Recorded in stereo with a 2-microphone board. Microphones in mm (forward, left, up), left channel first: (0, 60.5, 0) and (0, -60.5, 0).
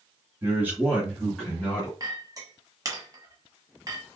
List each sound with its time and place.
0.4 s a man speaking: 20° right (ahead or behind), 1.6 m; by 1.9 s 15° left (ahead or behind), 2 m
2.0 s a clink: 30° right (ahead or behind), 1.2 m